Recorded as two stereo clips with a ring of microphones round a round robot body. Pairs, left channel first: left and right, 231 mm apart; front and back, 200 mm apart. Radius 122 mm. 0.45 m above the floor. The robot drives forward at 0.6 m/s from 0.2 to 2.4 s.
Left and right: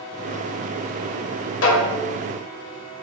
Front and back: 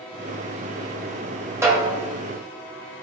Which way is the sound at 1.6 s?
105° left.